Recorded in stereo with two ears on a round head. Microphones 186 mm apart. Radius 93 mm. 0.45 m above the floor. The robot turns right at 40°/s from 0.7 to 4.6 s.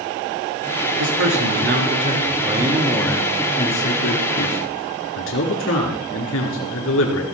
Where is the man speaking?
80° right, 5 m; by 7.2 s 65° left, 5 m.